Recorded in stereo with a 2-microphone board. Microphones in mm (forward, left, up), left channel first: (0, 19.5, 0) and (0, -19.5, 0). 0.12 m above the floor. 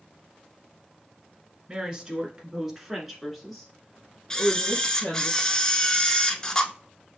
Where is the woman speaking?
25° right (ahead or behind), 1.4 m; by 5.3 s 10° left (ahead or behind), 2 m.